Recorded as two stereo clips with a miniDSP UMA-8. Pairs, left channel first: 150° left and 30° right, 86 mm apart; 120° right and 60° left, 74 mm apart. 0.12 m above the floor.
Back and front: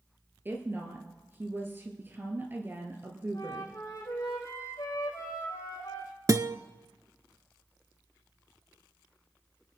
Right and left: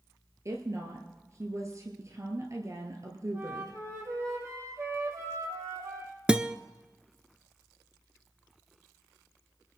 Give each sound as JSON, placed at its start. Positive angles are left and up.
{"t": 0.5, "sound": "a woman speaking", "azimuth_deg": 30, "distance_m": 1.8}
{"t": 3.3, "sound": "a flute", "azimuth_deg": 105, "distance_m": 3.5}
{"t": 6.3, "sound": "a guitar", "azimuth_deg": -10, "distance_m": 0.5}